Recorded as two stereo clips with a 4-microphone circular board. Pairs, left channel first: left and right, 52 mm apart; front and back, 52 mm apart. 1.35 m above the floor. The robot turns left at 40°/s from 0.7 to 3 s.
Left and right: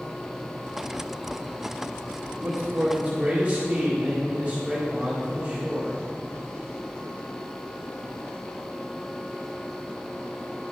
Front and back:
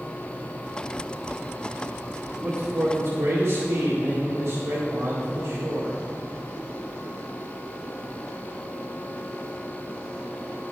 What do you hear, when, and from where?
2.3 s a man speaking: 135° right, 2 m; by 6.0 s 165° right, 2 m